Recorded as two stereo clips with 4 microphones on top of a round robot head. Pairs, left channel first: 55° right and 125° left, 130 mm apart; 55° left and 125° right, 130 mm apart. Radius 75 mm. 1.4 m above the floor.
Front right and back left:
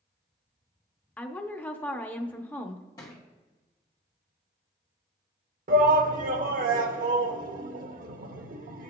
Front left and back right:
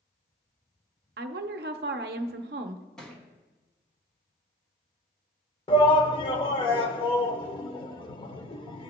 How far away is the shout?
About 1.0 m.